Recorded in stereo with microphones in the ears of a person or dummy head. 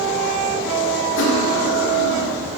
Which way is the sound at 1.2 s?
65° left (ahead or behind).